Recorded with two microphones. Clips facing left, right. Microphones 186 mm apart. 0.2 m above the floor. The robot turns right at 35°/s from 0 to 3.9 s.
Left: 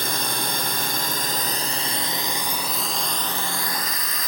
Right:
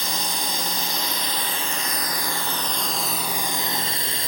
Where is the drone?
75° left; by 4.3 s 145° right.